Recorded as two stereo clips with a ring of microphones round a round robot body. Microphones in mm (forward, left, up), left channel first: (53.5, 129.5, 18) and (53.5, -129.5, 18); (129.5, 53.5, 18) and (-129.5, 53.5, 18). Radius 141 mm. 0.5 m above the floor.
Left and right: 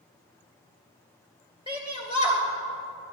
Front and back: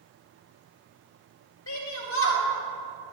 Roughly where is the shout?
Ahead.